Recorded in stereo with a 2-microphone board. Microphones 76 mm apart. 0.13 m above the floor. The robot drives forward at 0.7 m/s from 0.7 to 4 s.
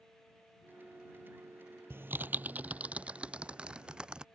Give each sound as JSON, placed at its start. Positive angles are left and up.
{"t": 1.9, "sound": "typing on a keyboard", "side_deg": -30}